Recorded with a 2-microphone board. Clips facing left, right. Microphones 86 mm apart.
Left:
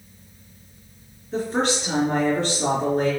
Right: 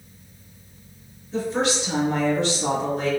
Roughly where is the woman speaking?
Left.